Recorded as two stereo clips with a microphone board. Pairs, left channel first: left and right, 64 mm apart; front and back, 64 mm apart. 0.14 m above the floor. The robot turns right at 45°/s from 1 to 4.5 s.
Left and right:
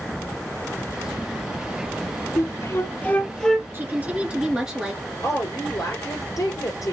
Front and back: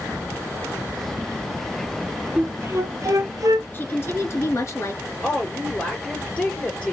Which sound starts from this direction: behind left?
A flute, at 2.4 s.